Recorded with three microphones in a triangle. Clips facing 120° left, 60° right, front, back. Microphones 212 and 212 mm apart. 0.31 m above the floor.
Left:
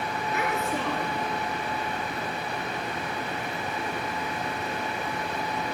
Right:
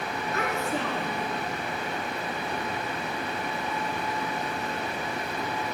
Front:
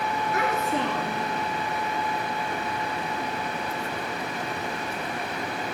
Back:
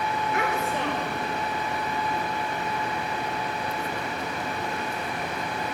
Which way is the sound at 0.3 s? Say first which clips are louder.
Even, front 3 dB; 50° left.